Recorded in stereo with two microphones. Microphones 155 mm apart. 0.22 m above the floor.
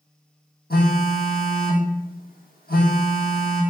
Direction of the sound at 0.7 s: 85° left.